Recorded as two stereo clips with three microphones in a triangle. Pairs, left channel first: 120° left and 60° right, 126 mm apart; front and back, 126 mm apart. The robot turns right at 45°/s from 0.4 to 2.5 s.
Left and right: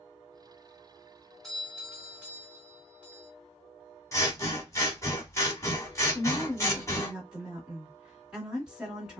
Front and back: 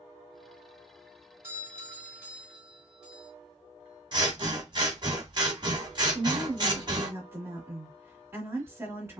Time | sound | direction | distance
1.4 | a doorbell | 155° right | 1.7 m
4.1 | scissors | 170° left | 1.0 m
6.1 | a woman speaking | 140° right | 1.3 m